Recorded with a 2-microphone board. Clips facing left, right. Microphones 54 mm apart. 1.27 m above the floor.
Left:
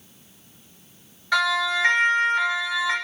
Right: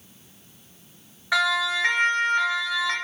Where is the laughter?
No laughter in this recording.